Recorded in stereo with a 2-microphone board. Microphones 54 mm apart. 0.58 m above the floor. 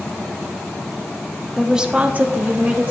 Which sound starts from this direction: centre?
A woman speaking, at 1.6 s.